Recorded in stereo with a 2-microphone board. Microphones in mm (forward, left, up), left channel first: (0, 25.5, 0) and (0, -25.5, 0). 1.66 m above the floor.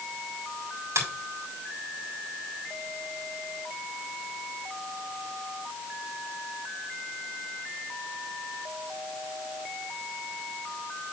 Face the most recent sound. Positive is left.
turn(degrees=-80)